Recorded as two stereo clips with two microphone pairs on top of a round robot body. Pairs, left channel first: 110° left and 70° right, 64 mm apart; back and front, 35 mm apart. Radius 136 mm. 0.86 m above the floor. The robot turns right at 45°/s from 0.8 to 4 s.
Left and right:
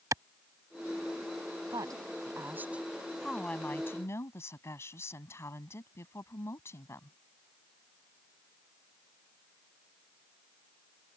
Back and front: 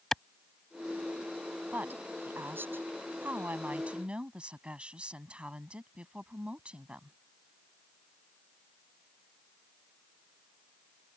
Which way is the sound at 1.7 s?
45° right.